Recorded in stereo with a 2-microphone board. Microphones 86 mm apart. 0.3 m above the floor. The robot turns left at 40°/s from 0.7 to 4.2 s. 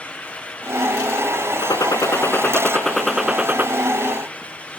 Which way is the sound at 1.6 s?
55° left.